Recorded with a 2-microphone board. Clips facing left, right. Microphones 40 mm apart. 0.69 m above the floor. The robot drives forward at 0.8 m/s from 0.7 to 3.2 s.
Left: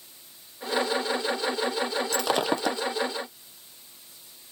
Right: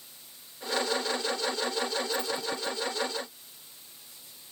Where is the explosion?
I don't hear an explosion.